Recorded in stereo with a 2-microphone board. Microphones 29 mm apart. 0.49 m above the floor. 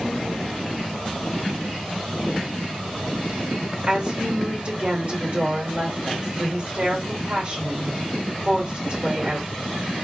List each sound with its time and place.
3.9 s a woman speaking: 45° right (ahead or behind), 1.9 m